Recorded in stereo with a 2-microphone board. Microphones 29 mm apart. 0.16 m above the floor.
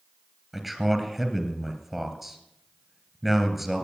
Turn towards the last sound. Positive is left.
turn(degrees=0)  # may be behind; listen again after turning